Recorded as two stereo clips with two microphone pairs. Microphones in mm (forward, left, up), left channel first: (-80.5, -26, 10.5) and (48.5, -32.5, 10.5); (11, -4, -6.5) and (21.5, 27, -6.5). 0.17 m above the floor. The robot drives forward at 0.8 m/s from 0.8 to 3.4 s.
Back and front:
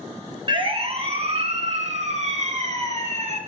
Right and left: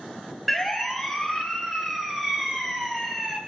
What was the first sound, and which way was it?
A siren, 15° right.